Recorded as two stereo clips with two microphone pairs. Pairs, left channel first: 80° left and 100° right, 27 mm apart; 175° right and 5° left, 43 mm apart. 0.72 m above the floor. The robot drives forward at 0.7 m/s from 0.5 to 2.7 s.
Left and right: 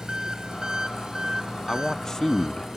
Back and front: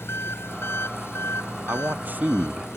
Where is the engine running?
160° right; by 2.8 s 165° right.